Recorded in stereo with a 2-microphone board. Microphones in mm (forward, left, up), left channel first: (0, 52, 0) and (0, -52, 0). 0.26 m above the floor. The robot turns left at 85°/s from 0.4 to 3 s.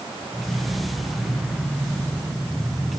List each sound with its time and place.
Only background noise.